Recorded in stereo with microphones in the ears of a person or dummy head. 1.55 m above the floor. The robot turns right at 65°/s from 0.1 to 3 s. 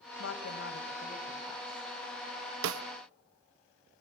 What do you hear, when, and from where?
0.2 s a woman speaking: 90° left, 2 m; by 1.9 s 155° right, 2 m
2.6 s a snare drum: 80° right, 0.7 m; by 2.8 s 90° right, 0.7 m